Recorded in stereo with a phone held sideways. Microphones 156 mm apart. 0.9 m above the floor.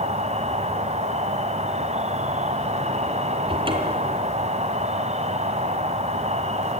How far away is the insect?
About 1.9 m.